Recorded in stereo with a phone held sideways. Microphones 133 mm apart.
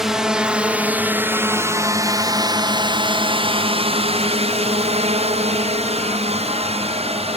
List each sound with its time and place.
0.0 s a drone: 5° right (ahead or behind); by 7.4 s 50° right (ahead or behind)